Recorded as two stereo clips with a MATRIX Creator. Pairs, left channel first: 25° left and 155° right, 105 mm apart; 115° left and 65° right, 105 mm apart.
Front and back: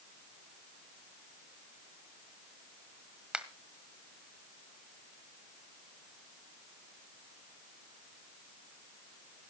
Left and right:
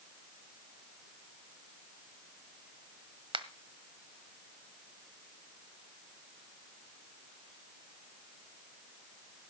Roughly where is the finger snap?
Right.